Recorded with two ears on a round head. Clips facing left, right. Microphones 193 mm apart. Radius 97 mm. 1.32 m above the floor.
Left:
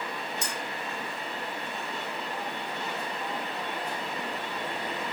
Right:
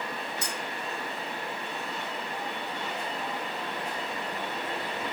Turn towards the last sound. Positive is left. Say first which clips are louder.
# even
turn(degrees=80)